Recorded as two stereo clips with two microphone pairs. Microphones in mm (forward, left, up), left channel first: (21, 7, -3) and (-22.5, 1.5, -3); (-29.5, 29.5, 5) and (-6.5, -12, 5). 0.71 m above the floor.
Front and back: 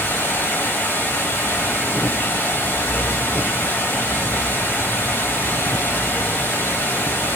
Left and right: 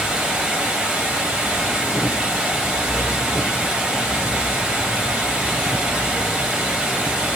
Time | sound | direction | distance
0.0 | running water | 5° left | 3.5 m